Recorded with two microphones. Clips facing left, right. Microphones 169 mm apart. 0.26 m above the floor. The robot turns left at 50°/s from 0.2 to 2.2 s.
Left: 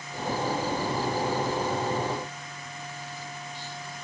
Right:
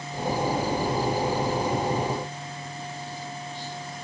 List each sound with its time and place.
Only background noise.